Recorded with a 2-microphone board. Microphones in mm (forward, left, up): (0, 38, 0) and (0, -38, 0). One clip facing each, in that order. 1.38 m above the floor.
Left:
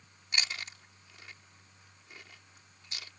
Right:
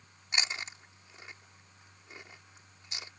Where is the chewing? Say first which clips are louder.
Right 1 dB; 20° right (ahead or behind).